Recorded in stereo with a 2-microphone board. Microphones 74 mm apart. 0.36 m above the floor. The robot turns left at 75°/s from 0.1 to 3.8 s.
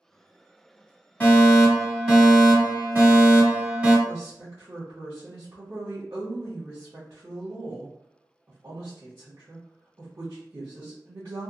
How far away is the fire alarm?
About 1.9 m.